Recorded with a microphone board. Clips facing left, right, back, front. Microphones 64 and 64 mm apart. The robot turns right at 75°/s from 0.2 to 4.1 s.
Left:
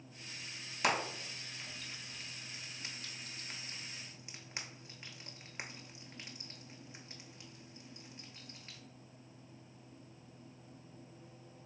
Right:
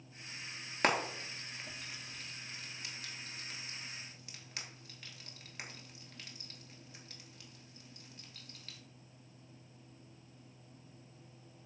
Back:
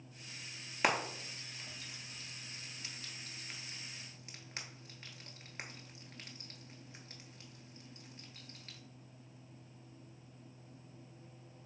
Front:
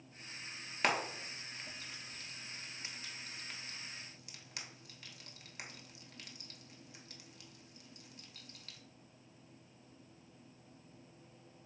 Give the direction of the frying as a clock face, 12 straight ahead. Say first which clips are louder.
Right 2 dB, back 1 dB; 3 o'clock.